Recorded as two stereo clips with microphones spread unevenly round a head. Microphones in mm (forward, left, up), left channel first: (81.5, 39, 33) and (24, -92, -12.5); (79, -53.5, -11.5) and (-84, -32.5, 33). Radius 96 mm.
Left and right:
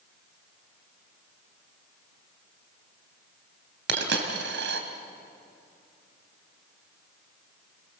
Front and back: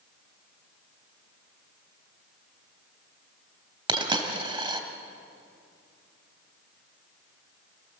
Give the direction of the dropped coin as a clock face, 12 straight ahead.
4 o'clock.